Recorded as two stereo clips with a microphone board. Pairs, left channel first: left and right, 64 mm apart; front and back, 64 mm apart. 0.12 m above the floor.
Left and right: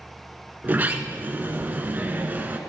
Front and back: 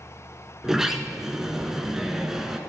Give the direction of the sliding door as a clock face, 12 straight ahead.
4 o'clock.